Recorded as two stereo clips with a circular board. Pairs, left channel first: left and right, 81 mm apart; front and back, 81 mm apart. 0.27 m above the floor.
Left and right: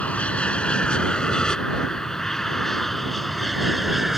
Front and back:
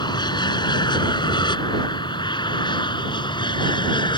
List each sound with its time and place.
0.0 s an aircraft: 15° left; by 4.2 s straight ahead